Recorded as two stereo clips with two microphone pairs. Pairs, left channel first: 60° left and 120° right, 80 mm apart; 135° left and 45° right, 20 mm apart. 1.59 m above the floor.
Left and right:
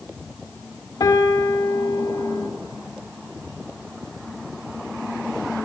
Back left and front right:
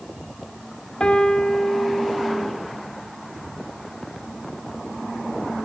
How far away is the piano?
About 2.5 m.